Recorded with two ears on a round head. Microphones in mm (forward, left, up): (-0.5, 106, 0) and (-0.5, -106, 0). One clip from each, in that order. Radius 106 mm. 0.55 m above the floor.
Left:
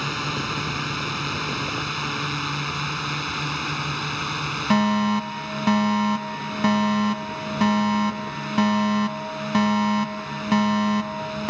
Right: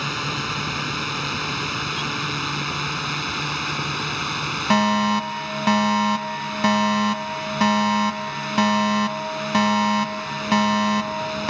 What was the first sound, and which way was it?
A drone, 10° right (ahead or behind).